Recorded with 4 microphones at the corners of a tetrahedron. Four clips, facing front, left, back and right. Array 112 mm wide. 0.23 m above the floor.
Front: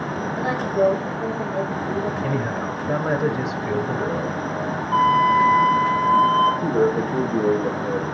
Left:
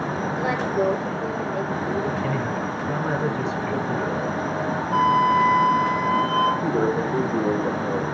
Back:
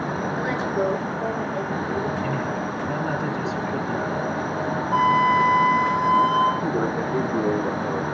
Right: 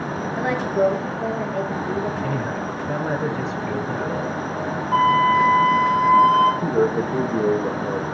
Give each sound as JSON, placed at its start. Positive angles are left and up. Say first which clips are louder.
{"t": 0.4, "sound": "a woman speaking", "louder": "right 4 dB, front 5 dB", "azimuth_deg": -80, "distance_m": 5.5}
{"t": 2.2, "sound": "a man speaking", "louder": "even, front 1 dB", "azimuth_deg": -20, "distance_m": 3.5}
{"t": 4.9, "sound": "a flute", "louder": "right 2 dB, front 2 dB", "azimuth_deg": -85, "distance_m": 6.0}
{"t": 6.6, "sound": "a man speaking", "louder": "right 2 dB, front 4 dB", "azimuth_deg": -60, "distance_m": 6.5}